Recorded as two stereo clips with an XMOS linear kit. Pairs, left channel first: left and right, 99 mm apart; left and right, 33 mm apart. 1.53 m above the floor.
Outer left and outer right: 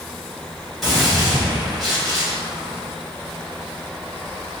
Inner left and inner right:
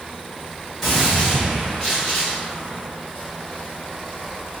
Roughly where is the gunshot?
Centre.